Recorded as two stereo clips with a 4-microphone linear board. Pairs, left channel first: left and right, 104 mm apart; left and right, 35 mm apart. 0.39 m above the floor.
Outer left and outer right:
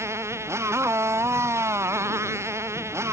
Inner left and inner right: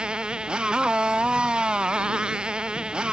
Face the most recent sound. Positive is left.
turn(degrees=-25)  # may be behind; listen again after turning